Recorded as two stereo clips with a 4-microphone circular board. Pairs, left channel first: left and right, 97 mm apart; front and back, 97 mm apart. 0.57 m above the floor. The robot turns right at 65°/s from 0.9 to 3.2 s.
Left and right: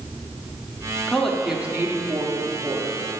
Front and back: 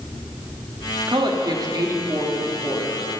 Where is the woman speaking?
165° left, 1.0 m; by 3.0 s 70° right, 1.0 m.